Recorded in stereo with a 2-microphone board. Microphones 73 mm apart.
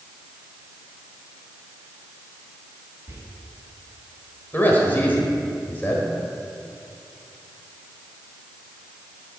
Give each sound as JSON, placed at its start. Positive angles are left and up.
{"t": 3.1, "sound": "whispering", "side_deg": -40, "distance_m": 2.0}
{"t": 4.5, "sound": "a man speaking", "side_deg": 25, "distance_m": 1.4}